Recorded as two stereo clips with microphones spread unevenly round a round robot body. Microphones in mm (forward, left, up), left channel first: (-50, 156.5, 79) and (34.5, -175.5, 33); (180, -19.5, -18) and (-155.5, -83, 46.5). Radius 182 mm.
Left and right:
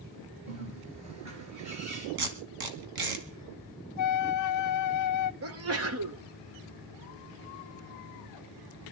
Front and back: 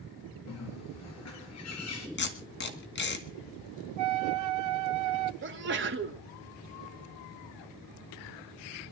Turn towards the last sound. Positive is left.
turn(degrees=-110)